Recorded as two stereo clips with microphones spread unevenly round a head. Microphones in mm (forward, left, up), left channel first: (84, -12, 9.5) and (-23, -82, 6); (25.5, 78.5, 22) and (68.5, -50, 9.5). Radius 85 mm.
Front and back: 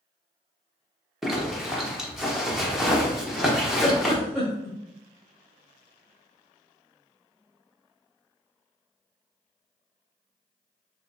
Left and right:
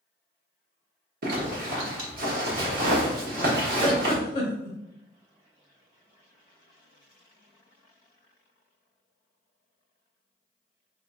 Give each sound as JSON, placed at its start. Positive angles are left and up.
{"t": 1.2, "sound": "a zipper", "azimuth_deg": -60, "distance_m": 1.1}
{"t": 3.8, "sound": "a giggle", "azimuth_deg": 120, "distance_m": 1.2}